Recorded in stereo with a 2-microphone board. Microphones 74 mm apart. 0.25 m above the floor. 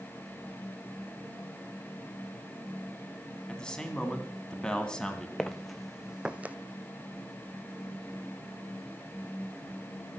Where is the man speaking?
10° left (ahead or behind), 2.5 m.